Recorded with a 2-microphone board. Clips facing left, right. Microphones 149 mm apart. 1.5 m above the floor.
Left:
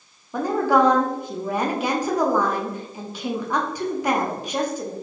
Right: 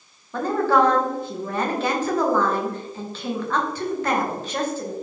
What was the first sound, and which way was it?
A woman speaking, 10° left (ahead or behind).